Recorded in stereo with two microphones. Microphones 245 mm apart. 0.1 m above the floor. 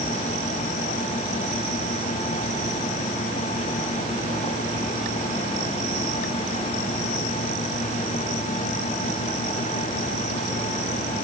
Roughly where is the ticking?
I don't hear ticking.